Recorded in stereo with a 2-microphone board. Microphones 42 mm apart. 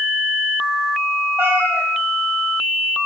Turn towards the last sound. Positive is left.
turn(degrees=-65)  # may be behind; listen again after turning